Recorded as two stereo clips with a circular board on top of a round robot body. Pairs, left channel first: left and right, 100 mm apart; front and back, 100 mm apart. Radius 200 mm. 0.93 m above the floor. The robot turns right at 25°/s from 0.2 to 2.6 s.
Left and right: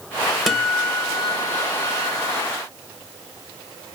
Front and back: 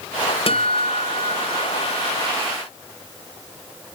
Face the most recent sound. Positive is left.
turn(degrees=50)